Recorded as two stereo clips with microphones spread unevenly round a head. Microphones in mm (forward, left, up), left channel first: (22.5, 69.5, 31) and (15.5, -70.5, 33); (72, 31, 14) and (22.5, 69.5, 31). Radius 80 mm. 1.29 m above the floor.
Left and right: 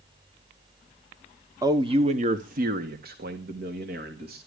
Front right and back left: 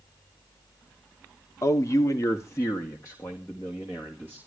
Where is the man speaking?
30° right, 1.0 m; by 4.4 s 110° right, 2.5 m.